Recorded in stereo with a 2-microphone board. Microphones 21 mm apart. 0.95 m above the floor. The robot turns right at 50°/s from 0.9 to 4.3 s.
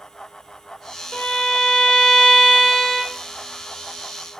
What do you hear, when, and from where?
1.1 s a violin: 70° left, 0.8 m; by 3.2 s 175° left, 0.8 m